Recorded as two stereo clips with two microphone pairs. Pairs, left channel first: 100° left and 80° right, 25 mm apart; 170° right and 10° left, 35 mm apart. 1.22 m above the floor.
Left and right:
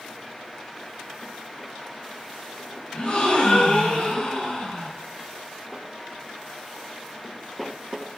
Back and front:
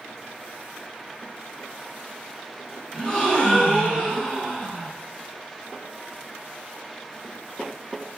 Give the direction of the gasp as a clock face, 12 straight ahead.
8 o'clock.